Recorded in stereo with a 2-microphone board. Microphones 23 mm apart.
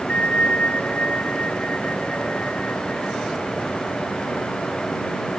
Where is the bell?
55° left (ahead or behind).